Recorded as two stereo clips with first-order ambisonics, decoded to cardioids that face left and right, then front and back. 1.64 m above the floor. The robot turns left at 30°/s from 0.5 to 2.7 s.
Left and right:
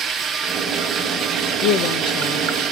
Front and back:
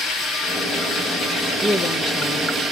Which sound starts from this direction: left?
A woman speaking, at 1.6 s.